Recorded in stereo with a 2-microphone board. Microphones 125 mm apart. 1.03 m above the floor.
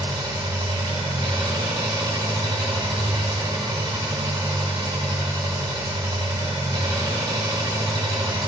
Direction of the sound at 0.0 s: 35° right (ahead or behind).